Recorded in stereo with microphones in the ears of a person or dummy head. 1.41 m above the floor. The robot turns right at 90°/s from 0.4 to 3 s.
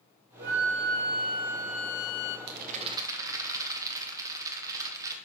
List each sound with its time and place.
0.4 s a flute: 120° right, 0.9 m; by 2.4 s 60° left, 0.9 m
2.5 s a rattle: 65° right, 1.3 m; by 5.2 s 15° right, 1.3 m